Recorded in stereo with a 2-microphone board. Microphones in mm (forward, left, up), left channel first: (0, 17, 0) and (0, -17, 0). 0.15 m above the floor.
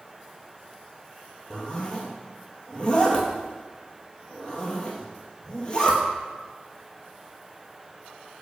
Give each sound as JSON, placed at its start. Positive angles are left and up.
{"t": 1.5, "sound": "a zipper", "side_deg": 30, "distance_m": 0.9}